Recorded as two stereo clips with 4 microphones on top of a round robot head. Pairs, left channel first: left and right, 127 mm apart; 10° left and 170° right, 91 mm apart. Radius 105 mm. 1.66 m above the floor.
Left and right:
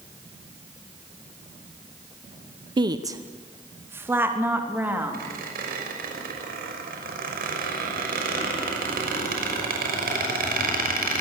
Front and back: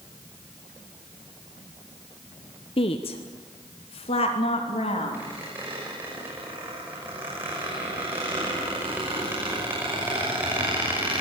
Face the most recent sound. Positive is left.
turn(degrees=-95)